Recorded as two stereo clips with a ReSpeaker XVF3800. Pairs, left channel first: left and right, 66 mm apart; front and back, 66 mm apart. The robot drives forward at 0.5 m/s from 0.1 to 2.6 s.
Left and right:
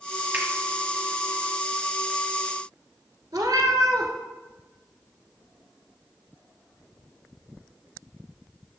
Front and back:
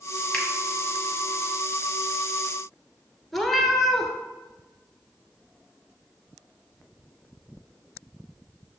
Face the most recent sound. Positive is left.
turn(degrees=-85)